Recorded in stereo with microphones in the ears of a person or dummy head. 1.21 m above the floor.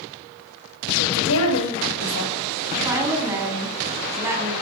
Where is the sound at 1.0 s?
85° left, 7 m.